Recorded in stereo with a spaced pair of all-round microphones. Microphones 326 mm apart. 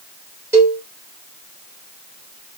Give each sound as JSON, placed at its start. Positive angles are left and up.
{"t": 0.5, "sound": "a cowbell", "side_deg": -10, "distance_m": 1.2}